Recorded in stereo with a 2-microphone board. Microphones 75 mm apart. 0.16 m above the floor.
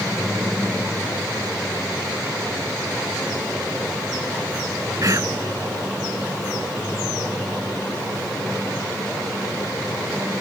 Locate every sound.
5.0 s whispering: 45° right (ahead or behind)